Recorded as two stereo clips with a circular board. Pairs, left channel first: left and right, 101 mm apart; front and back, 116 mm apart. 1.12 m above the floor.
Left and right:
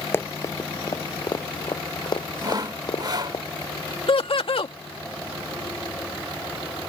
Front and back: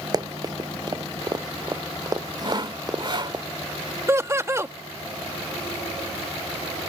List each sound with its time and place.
0.1 s running footsteps: 145° left; by 3.4 s 125° left
2.4 s sawing: 135° right
4.1 s laughter: 115° left